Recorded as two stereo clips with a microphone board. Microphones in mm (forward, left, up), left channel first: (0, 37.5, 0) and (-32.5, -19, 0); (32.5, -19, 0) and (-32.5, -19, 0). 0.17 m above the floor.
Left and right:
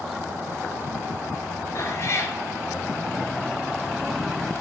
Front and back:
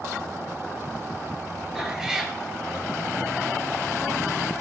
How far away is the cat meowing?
About 1.4 m.